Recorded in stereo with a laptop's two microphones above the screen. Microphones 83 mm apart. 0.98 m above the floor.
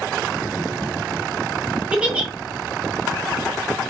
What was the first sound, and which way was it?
A giggle, 15° right (ahead or behind).